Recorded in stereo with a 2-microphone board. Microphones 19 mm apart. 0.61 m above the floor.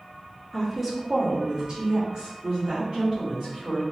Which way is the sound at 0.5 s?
5° left (ahead or behind).